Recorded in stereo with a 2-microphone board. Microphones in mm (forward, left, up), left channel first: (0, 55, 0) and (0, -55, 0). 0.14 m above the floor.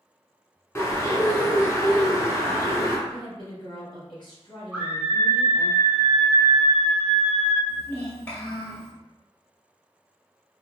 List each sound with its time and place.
0.8 s a bird: 25° left (ahead or behind), 1.2 m
3.1 s a woman speaking: 45° left (ahead or behind), 1.8 m
4.7 s a scream: 10° right (ahead or behind), 1.2 m
7.7 s a child speaking: 15° left (ahead or behind), 1.7 m